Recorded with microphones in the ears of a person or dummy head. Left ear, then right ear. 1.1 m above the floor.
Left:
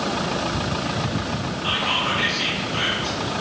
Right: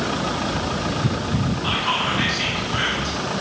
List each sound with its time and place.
1.6 s whispering: 15° left (ahead or behind), 0.9 m